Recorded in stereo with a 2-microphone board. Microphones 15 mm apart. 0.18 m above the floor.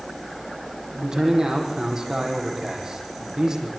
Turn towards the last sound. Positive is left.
turn(degrees=-50)  # may be behind; listen again after turning